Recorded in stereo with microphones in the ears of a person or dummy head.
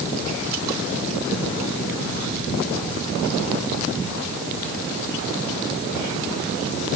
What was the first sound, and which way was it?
Only background noise.